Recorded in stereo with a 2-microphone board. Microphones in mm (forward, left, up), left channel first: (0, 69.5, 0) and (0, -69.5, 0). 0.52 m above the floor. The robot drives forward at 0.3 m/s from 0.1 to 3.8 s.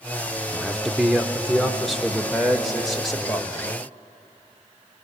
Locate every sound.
0.5 s a man speaking: centre (ahead or behind), 0.8 m